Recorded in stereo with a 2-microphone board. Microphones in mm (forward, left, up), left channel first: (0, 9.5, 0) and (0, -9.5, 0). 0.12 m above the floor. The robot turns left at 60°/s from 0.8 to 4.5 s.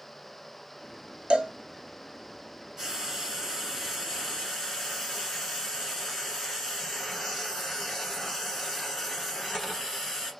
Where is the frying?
15° right (ahead or behind), 1.3 m; by 10.3 s 10° left (ahead or behind), 1.3 m.